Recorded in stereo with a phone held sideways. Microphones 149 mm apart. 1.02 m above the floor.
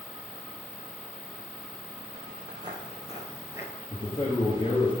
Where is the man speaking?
40° left (ahead or behind), 1.6 m.